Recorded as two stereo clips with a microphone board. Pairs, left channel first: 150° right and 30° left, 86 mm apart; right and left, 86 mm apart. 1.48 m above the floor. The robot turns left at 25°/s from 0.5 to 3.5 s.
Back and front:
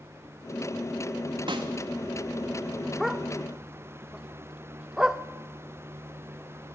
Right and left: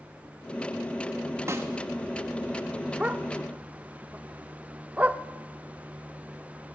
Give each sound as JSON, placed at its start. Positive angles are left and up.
{"t": 1.5, "sound": "a snare drum", "azimuth_deg": 35, "distance_m": 2.5}
{"t": 3.0, "sound": "a dog barking", "azimuth_deg": 115, "distance_m": 1.1}